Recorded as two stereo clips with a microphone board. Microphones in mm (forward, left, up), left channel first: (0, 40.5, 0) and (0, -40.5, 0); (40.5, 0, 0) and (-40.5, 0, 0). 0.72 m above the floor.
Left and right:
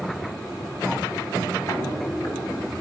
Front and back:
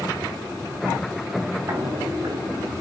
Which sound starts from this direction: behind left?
Footsteps, at 1.7 s.